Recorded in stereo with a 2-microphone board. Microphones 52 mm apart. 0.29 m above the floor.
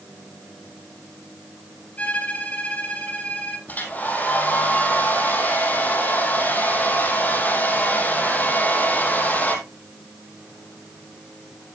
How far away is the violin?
About 3.5 m.